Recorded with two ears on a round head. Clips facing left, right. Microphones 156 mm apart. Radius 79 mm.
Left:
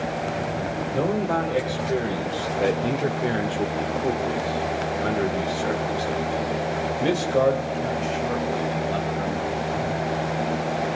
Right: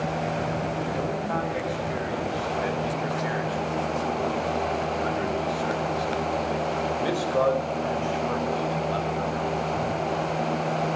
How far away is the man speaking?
About 3.5 m.